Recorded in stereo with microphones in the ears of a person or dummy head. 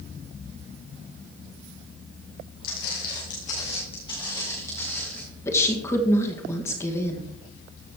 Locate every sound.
2.6 s footsteps: 60° left (ahead or behind), 3 m; by 5.2 s 5° left (ahead or behind), 4 m
5.5 s a woman speaking: 20° left (ahead or behind), 1.6 m